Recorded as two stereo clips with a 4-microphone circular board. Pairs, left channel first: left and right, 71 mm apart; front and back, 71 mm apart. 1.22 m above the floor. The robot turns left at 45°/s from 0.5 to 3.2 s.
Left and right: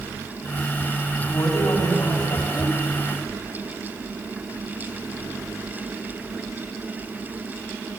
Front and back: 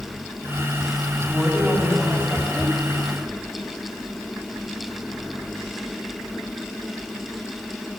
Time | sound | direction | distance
1.2 | a woman speaking | 110° left | 7.5 m